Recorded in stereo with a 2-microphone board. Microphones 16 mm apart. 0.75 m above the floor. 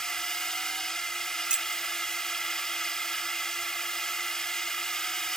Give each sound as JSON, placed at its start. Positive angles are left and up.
{"t": 0.0, "sound": "a drone", "side_deg": 35}
{"t": 1.5, "sound": "keys jangling", "side_deg": -55}